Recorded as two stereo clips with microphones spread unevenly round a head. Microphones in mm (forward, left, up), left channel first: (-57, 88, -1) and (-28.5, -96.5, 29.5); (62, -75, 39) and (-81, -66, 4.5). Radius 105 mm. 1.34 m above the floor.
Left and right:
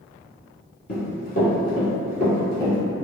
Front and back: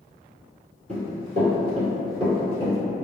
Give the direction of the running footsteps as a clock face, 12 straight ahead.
8 o'clock.